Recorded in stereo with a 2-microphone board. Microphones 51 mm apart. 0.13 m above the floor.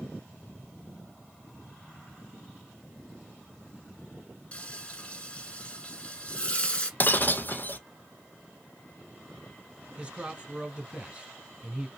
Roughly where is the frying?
Left.